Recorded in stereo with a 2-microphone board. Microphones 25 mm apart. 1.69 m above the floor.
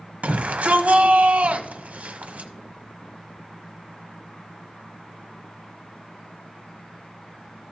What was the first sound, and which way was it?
A shout, 70° right (ahead or behind).